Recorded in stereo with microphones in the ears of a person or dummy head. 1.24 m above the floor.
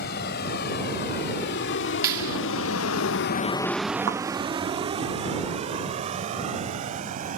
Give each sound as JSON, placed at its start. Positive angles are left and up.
{"t": 0.0, "sound": "a vehicle", "side_deg": 60}
{"t": 2.0, "sound": "a clap", "side_deg": -20}
{"t": 4.1, "sound": "a thud", "side_deg": -65}